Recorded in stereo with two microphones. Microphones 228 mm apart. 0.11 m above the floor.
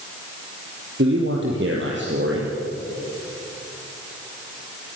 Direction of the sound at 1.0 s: 55° right (ahead or behind).